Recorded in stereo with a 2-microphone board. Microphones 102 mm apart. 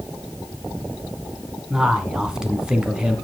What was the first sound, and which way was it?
A man speaking, 10° right (ahead or behind).